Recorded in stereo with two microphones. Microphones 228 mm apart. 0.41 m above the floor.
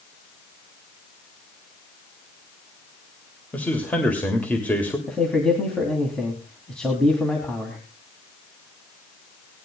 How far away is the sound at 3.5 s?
About 2 m.